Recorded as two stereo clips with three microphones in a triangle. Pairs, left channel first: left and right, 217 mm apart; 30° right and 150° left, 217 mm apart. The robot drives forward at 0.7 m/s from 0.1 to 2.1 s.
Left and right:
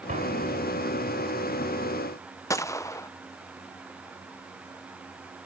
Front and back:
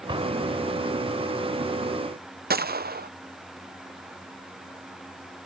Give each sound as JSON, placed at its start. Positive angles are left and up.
{"t": 0.1, "sound": "an explosion", "azimuth_deg": -145}
{"t": 2.5, "sound": "a gunshot", "azimuth_deg": 160}